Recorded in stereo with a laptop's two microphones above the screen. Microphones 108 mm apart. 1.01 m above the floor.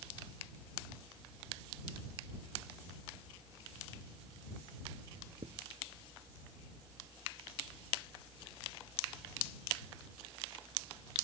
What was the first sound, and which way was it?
Writing, 85° right.